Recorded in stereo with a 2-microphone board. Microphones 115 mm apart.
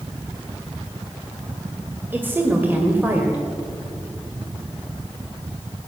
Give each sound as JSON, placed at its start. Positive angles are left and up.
{"t": 2.1, "sound": "a woman speaking", "side_deg": -15, "distance_m": 1.6}